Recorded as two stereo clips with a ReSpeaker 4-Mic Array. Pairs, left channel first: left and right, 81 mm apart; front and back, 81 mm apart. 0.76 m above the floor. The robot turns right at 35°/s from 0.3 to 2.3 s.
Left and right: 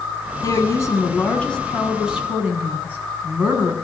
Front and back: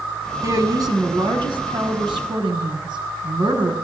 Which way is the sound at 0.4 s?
130° left.